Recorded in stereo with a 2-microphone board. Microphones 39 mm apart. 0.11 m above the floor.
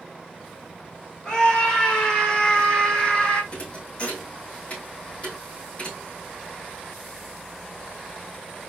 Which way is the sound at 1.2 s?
20° left (ahead or behind).